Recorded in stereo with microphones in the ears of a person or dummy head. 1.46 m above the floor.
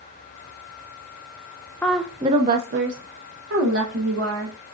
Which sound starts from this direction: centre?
A woman speaking, at 1.8 s.